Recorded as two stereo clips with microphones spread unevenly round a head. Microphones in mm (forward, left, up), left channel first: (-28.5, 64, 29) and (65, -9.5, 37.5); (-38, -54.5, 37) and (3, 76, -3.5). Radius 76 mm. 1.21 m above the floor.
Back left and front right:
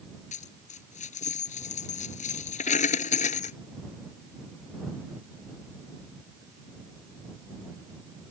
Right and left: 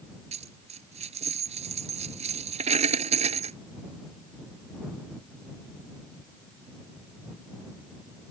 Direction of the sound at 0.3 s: 120° left.